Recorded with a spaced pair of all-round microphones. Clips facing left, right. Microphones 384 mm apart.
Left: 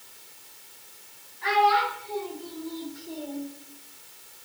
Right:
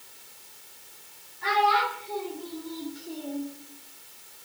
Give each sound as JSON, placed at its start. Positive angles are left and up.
{"t": 1.4, "sound": "a child speaking", "side_deg": -55, "distance_m": 3.0}